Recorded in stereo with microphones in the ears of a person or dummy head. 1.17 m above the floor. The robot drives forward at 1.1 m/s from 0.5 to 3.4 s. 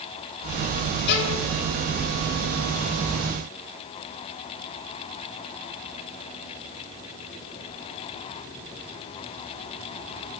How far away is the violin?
About 3 m.